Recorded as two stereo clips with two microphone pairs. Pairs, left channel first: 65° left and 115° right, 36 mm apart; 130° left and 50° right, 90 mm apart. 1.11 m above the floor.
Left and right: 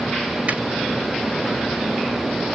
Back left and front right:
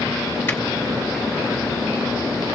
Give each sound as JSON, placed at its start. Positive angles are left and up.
{"t": 0.5, "sound": "a finger snap", "azimuth_deg": -160, "distance_m": 3.5}